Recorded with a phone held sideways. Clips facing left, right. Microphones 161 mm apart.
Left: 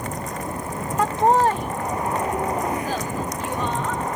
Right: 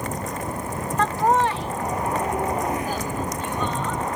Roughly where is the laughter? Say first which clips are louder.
Left 3 dB; centre.